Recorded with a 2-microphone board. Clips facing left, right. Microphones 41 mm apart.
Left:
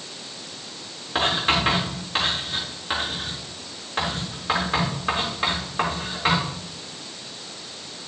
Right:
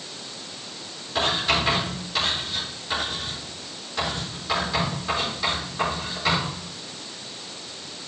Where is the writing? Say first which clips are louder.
Left 1 dB; 45° left (ahead or behind), 6.5 m.